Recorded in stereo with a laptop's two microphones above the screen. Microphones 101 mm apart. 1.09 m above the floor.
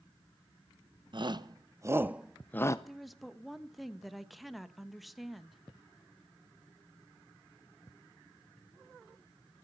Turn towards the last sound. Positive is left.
turn(degrees=0)  # may be behind; listen again after turning